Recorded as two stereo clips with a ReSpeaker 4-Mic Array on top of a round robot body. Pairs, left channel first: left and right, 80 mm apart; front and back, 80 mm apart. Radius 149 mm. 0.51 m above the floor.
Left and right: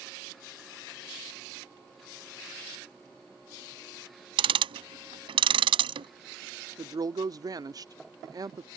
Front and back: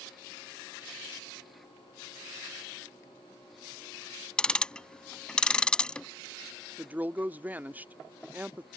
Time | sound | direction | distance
4.4 | ticking | 80° right | ?
6.8 | a woman speaking | 115° right | ?